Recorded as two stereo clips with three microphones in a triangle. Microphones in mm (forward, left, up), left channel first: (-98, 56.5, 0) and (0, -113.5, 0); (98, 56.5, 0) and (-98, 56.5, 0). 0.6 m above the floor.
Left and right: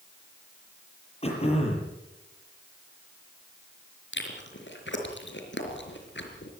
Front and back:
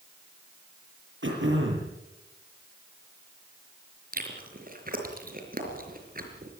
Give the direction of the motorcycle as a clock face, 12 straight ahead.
I don't hear a motorcycle.